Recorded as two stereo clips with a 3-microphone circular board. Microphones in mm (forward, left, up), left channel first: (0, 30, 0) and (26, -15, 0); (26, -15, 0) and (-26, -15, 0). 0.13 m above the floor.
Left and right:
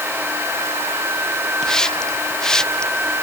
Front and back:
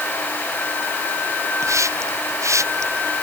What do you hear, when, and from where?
1.6 s a hiss: 165° right